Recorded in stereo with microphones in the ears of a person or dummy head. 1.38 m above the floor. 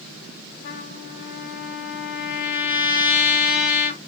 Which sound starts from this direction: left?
A trumpet, at 0.6 s.